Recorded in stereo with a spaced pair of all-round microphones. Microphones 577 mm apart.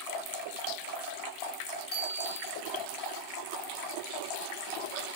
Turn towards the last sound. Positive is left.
turn(degrees=65)  # may be behind; listen again after turning